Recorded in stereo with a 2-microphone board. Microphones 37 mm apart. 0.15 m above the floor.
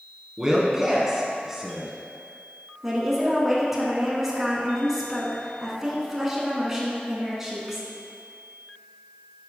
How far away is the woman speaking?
About 1.7 m.